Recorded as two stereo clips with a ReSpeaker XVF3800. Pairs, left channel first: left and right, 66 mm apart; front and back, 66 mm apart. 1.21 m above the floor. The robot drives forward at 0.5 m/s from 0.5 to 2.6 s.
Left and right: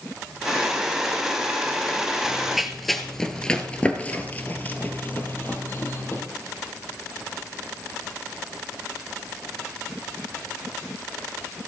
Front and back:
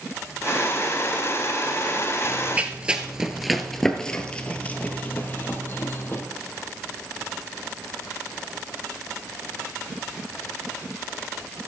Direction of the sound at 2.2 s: 160° right.